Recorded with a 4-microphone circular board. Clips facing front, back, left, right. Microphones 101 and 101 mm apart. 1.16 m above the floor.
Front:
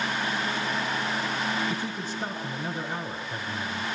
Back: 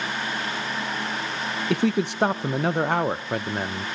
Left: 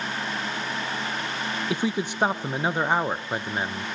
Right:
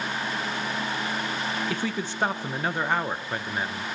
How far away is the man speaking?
About 0.5 m.